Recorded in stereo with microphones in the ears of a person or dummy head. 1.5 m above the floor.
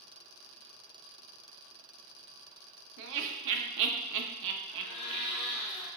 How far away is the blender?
About 1.1 m.